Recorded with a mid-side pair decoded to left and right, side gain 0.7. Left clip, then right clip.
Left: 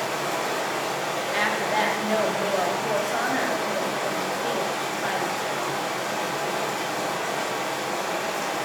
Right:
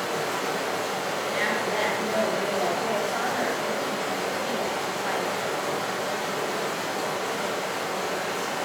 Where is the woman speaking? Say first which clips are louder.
Left 3 dB; 30° left, 0.7 m.